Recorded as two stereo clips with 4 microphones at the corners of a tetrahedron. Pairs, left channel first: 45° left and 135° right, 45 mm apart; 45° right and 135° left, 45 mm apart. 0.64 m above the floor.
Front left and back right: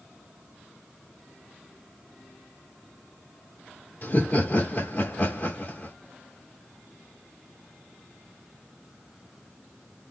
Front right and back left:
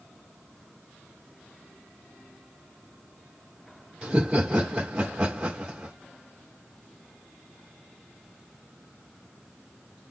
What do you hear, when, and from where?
4.0 s laughter: 65° left, 1.6 m